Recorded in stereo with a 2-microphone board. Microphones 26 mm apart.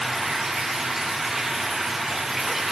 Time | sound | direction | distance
0.0 | running water | 10° right (ahead or behind) | 0.8 m